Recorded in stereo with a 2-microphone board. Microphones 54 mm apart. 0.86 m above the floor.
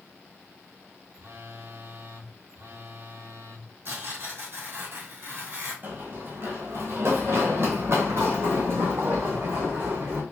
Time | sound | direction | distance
1.1 | a phone buzzing | 50° right (ahead or behind) | 0.8 m
3.9 | tearing paper | 55° right (ahead or behind) | 2.0 m
5.8 | running footsteps | 40° right (ahead or behind) | 1.1 m